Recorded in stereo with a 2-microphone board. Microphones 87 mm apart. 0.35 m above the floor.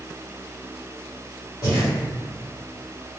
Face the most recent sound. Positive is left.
turn(degrees=35)  # may be behind; listen again after turning